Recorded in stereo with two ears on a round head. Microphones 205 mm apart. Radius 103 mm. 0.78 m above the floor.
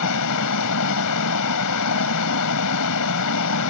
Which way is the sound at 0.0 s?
85° left.